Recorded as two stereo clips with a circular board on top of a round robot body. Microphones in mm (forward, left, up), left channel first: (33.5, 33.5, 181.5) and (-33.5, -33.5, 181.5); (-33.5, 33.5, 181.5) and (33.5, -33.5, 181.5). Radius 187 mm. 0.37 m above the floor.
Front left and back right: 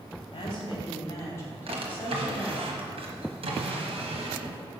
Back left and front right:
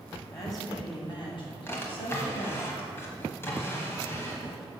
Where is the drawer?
160° right, 1.2 m.